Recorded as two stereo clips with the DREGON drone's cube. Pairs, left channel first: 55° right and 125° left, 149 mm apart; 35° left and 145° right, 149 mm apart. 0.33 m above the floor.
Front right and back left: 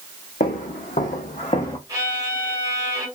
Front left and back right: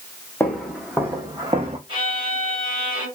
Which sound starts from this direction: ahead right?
Footsteps, at 0.4 s.